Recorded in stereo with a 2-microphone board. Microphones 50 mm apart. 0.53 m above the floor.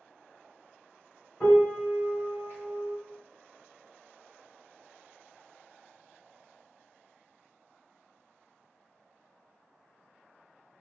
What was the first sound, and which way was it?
A piano, 35° left (ahead or behind).